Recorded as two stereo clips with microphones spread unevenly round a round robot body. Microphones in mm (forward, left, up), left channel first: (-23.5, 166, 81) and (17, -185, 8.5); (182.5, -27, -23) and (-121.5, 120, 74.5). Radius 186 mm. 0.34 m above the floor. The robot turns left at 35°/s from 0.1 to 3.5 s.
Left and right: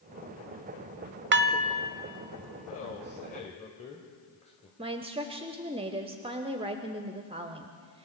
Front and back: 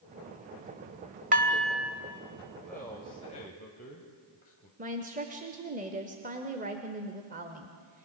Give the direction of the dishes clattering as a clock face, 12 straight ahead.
4 o'clock.